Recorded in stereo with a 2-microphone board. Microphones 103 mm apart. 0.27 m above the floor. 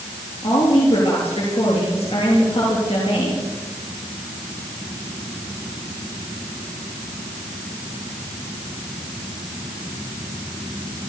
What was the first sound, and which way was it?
A woman speaking, 75° left (ahead or behind).